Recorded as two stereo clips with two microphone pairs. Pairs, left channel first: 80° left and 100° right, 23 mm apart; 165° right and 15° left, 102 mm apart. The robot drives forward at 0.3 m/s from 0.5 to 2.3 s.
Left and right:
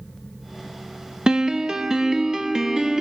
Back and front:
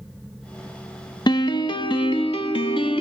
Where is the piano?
150° right, 0.6 m; by 3.0 s 160° right, 0.8 m.